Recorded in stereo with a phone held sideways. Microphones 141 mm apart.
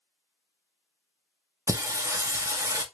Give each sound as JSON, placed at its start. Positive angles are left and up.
{"t": 1.7, "sound": "singing", "side_deg": -20, "distance_m": 0.6}